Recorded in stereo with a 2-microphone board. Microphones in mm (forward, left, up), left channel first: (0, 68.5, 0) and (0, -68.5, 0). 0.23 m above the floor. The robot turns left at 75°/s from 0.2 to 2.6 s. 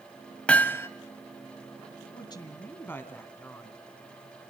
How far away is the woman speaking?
About 2.0 m.